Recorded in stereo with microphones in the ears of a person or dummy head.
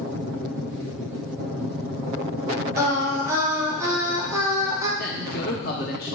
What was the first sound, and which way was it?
Singing, 25° right (ahead or behind).